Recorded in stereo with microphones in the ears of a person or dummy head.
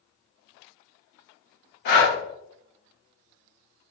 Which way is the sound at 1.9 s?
55° left (ahead or behind).